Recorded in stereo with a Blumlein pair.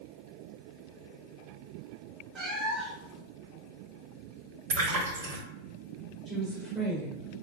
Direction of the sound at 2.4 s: 15° right.